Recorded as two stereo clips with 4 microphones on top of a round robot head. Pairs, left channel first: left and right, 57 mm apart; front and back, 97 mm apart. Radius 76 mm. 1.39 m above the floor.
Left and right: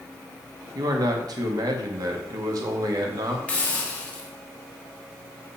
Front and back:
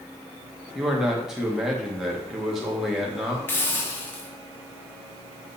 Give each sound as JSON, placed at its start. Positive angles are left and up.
{"t": 0.8, "sound": "a man speaking", "azimuth_deg": -95, "distance_m": 1.8}
{"t": 3.5, "sound": "a hiss", "azimuth_deg": 50, "distance_m": 0.9}